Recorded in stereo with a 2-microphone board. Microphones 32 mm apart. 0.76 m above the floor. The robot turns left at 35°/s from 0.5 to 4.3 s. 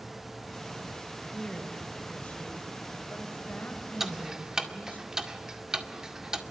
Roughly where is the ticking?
Centre.